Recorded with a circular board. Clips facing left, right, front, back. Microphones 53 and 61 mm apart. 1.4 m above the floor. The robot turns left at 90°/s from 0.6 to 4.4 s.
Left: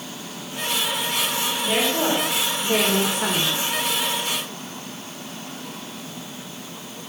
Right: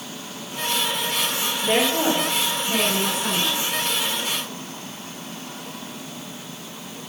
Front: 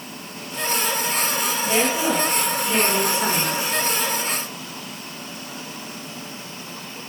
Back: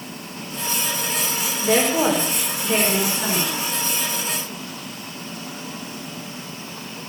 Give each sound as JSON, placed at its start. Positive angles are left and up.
{"t": 1.6, "sound": "a woman speaking", "azimuth_deg": -150, "distance_m": 5.0}